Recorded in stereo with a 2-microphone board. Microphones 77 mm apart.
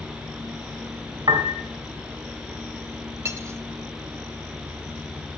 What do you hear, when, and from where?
1.3 s a piano: 80° right, 2 m
3.2 s cutlery clinking: 35° right (ahead or behind), 1.3 m